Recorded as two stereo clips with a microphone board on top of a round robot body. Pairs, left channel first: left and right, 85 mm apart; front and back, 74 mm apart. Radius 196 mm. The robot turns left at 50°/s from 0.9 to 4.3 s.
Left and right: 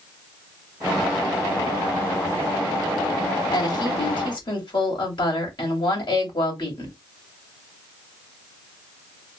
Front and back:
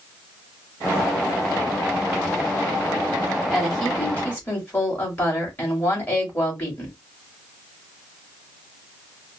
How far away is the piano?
I don't hear a piano.